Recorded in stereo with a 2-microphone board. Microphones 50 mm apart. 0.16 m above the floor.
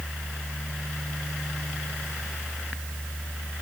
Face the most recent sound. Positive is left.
No sound to turn to.